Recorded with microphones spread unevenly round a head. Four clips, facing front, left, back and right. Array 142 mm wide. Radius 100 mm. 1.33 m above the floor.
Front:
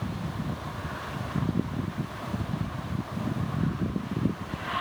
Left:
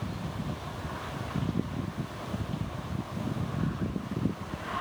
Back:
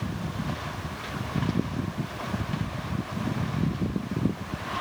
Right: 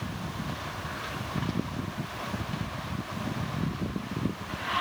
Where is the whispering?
I don't hear whispering.